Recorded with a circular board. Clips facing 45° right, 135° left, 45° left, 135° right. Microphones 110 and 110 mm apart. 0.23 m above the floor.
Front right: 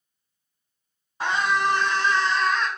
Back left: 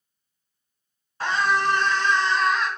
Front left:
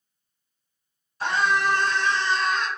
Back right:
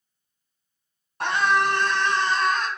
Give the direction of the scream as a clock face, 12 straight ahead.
4 o'clock.